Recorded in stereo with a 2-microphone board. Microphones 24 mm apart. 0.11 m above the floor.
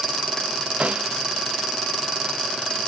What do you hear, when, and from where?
0.8 s a snare drum: 60° right (ahead or behind)